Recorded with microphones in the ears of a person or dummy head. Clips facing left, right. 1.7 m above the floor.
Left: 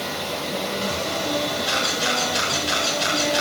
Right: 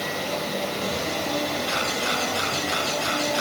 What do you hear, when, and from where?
1.7 s a camera shutter: 25° left (ahead or behind), 9.5 m